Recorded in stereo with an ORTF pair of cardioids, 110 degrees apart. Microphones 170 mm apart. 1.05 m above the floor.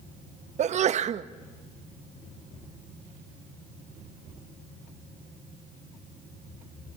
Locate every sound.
0.6 s a sneeze: 45° right, 0.9 m